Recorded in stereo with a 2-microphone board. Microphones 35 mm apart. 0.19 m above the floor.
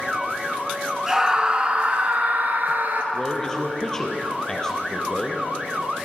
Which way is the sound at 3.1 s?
20° left (ahead or behind).